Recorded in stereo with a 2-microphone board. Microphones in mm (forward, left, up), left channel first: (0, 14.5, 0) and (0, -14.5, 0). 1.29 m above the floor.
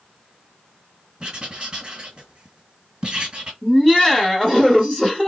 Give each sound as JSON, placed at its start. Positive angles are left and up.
{"t": 1.2, "sound": "writing", "side_deg": -30, "distance_m": 1.7}
{"t": 3.6, "sound": "laughter", "side_deg": -5, "distance_m": 1.1}